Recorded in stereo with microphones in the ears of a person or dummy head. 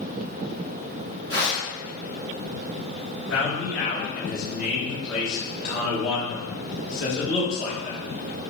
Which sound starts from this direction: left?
A man speaking, at 3.3 s.